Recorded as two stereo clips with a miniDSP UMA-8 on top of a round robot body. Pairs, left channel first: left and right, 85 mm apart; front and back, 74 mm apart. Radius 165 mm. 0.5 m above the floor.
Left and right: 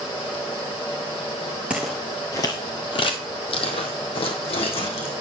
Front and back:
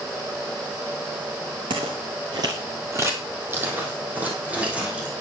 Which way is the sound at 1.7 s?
165° right.